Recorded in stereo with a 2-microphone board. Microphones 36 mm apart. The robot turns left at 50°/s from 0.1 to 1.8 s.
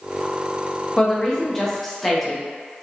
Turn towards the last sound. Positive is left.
turn(degrees=5)  # may be behind; listen again after turning